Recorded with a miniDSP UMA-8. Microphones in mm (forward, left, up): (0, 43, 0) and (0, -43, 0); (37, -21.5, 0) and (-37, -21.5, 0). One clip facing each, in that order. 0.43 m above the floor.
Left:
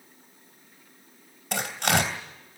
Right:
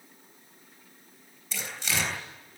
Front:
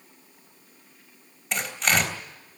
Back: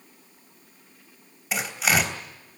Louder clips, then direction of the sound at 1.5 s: Left 9 dB, back 1 dB; 95° left.